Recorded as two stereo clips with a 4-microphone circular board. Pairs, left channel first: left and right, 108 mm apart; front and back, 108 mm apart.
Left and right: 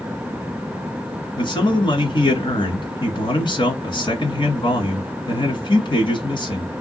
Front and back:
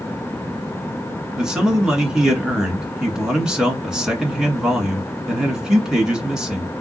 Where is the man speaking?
100° left, 1.7 m.